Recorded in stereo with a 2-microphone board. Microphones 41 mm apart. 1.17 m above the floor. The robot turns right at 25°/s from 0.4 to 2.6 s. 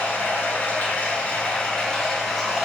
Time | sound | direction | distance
0.0 | running water | 120° left | 2 m